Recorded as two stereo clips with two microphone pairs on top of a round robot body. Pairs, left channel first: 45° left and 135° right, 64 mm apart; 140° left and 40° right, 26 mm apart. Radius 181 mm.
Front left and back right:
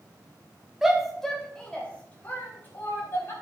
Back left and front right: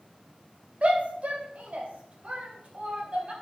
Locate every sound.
0.8 s a shout: 50° right, 2.5 m; by 3.3 s 5° right, 4.5 m